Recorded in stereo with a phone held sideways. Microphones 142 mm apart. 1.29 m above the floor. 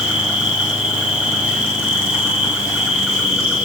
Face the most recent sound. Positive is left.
turn(degrees=-10)  # may be behind; listen again after turning